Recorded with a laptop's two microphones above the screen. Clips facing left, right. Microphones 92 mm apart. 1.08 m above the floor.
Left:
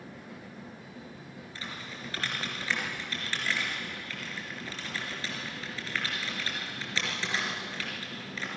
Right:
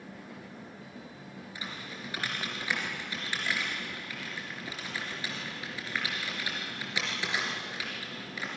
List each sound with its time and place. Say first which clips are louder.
1.6 s typing on a keyboard: even; 15° right (ahead or behind), 4 m